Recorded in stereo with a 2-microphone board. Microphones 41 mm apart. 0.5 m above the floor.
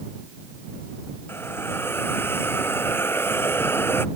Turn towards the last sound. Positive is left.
turn(degrees=65)  # may be behind; listen again after turning